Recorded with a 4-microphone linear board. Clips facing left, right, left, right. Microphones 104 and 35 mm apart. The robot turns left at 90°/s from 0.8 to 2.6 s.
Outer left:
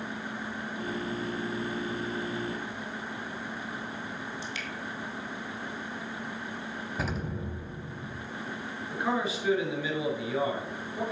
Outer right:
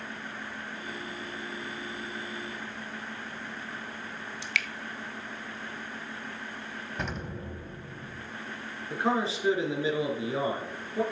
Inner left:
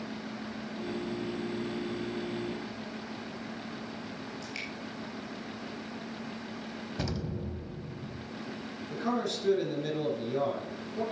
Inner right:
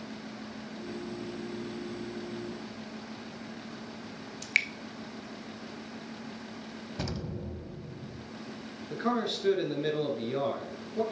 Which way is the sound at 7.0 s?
5° left (ahead or behind).